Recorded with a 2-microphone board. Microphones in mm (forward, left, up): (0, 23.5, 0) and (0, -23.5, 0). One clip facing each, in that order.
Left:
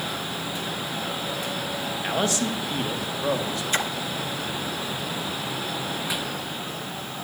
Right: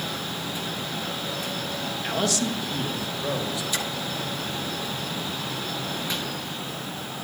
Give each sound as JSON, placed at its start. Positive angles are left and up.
{"t": 2.0, "sound": "a man speaking", "side_deg": 20, "distance_m": 1.5}
{"t": 3.7, "sound": "a splash", "side_deg": 40, "distance_m": 0.9}